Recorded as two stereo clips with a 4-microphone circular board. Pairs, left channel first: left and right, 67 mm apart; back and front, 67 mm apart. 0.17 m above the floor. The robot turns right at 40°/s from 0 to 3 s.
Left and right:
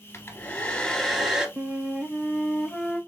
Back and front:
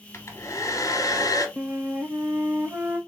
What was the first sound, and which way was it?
A hair dryer, 140° left.